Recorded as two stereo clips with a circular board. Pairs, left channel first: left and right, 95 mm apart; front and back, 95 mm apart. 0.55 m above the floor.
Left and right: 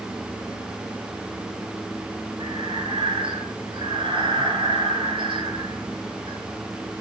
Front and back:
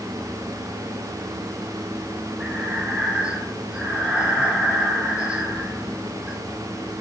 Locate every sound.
2.4 s breathing: 100° right, 5 m